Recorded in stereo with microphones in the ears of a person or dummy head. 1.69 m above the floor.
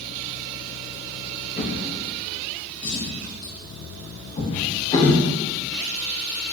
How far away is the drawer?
About 1.8 m.